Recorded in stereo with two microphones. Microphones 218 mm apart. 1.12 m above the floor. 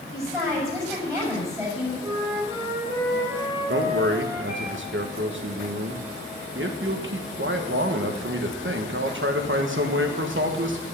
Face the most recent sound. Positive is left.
turn(degrees=-60)  # may be behind; listen again after turning